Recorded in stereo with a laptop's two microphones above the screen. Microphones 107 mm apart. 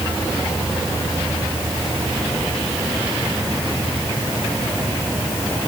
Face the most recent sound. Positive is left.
No sound to turn to.